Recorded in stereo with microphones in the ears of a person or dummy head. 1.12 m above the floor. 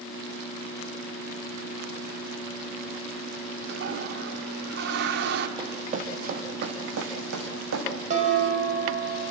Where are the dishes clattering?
40° right (ahead or behind), 5 m.